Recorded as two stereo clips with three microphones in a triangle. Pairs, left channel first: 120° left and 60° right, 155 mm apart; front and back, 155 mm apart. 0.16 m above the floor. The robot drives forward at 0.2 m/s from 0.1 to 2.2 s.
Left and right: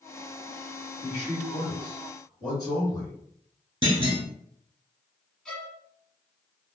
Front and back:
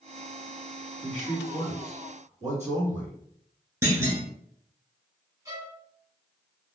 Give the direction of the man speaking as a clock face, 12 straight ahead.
6 o'clock.